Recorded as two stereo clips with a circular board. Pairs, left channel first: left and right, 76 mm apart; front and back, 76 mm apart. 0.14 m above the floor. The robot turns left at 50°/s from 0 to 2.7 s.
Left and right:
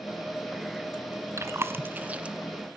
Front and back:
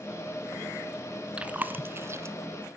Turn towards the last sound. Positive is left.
turn(degrees=180)